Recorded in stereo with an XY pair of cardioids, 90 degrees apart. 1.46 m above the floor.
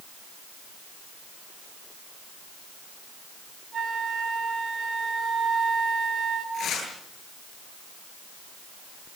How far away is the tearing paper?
About 10 m.